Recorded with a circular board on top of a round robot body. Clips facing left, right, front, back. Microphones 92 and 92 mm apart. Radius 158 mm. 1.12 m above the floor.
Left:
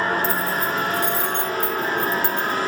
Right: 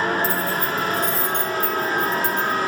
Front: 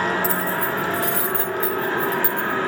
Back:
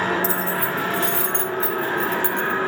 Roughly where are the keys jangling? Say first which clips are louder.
Even, front 1 dB; behind left.